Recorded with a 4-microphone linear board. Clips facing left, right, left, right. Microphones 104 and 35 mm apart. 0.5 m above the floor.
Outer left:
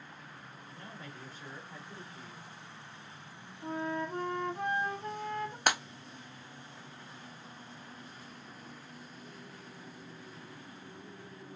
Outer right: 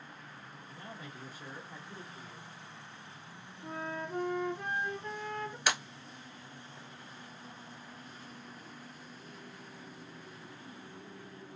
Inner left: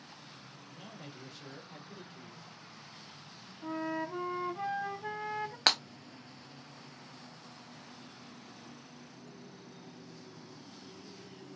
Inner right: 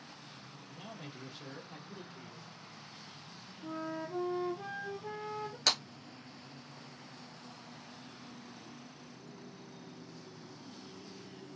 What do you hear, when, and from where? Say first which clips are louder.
0.7 s a man speaking: outer right 1 dB, inner right 2 dB; 10° right (ahead or behind), 0.8 m
3.6 s a flute: outer left 4 dB, inner left 4 dB; 60° left (ahead or behind), 0.6 m
5.7 s breaking glass: outer left 3 dB, inner left 3 dB; 50° left (ahead or behind), 0.6 m